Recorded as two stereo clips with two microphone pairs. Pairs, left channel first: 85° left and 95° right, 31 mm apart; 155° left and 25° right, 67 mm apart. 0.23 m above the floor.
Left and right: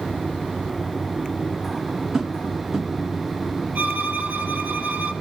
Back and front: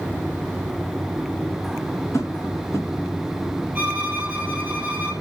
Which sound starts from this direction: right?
A violin, at 3.8 s.